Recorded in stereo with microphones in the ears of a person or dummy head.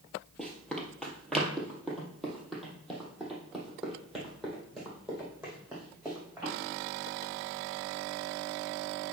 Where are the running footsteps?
5° left (ahead or behind), 2 m; by 6.5 s centre (ahead or behind), 5 m.